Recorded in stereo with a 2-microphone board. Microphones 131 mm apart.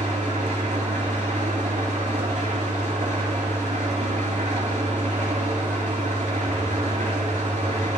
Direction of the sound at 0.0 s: 70° right (ahead or behind).